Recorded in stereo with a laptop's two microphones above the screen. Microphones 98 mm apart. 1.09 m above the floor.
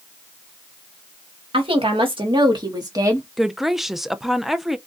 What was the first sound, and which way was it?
A woman speaking, 70° right (ahead or behind).